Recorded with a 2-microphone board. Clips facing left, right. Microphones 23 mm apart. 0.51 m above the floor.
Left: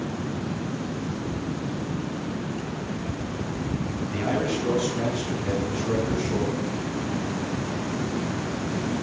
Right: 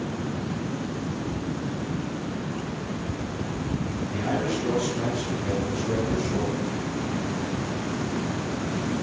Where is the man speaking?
25° left (ahead or behind), 5 m.